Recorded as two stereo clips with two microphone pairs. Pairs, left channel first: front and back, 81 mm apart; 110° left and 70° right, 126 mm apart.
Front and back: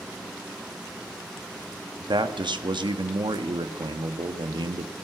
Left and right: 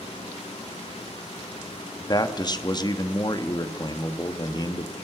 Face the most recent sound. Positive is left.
turn(degrees=165)